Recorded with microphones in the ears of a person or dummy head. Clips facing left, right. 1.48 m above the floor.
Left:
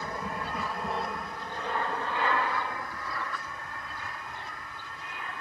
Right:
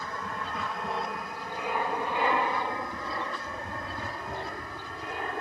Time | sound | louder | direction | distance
0.0 | an aircraft | left 1 dB | 15° left (ahead or behind) | ?